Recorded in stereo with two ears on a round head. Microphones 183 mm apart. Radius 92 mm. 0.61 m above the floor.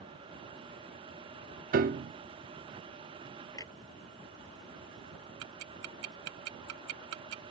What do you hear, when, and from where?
1.7 s a piano: 45° right (ahead or behind)
3.5 s a clunk: 15° left (ahead or behind)
5.4 s ticking: 85° right